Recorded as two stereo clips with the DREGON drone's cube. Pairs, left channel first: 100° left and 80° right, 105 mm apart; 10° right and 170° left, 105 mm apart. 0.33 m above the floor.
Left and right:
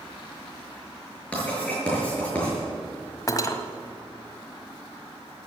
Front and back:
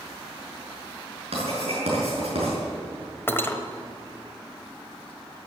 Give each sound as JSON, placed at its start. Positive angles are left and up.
{"t": 1.3, "sound": "writing", "azimuth_deg": 180, "distance_m": 6.0}
{"t": 3.3, "sound": "cutlery clinking", "azimuth_deg": 50, "distance_m": 1.2}